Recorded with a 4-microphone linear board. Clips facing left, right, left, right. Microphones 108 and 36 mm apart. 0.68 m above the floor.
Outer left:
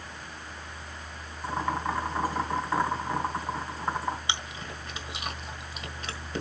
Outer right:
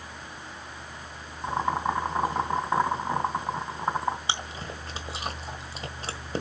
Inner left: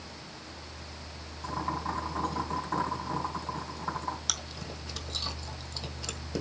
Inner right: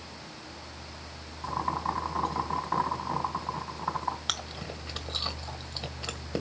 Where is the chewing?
35° right (ahead or behind), 1.6 m.